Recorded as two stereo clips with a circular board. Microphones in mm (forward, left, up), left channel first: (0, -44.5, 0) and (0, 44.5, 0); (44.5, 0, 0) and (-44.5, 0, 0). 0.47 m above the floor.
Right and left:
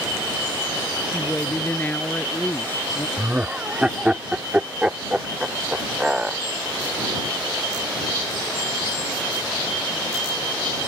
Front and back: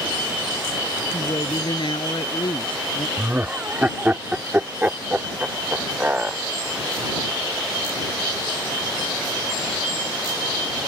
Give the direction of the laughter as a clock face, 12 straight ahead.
7 o'clock.